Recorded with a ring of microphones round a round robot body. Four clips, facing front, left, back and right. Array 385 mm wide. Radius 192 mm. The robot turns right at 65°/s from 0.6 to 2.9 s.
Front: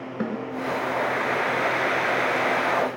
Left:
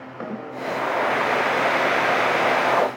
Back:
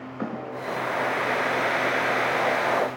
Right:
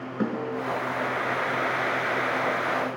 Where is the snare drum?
40° right, 3.5 m.